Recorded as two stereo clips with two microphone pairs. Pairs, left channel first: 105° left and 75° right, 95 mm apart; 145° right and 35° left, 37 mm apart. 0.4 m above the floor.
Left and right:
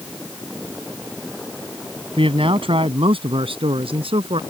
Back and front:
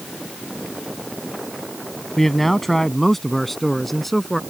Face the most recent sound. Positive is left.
turn(degrees=-65)